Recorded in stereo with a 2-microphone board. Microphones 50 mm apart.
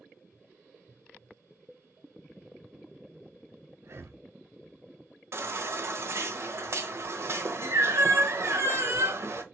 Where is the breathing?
55° right (ahead or behind), 0.6 m.